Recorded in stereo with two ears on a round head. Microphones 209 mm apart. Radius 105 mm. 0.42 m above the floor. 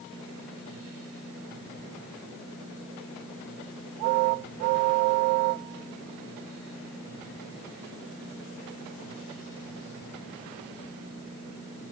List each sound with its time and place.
Only background noise.